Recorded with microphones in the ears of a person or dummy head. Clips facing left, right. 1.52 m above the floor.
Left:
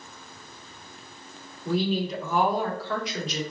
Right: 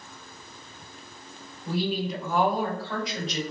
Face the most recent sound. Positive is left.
turn(degrees=50)  # may be behind; listen again after turning